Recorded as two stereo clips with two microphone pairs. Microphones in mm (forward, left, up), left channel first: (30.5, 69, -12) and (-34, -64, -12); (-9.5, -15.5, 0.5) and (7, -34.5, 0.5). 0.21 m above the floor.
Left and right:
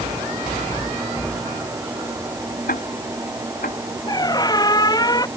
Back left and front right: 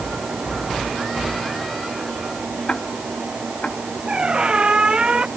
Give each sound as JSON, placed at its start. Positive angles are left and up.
{"t": 2.7, "sound": "ticking", "azimuth_deg": 80}
{"t": 4.1, "sound": "a squeak", "azimuth_deg": 0}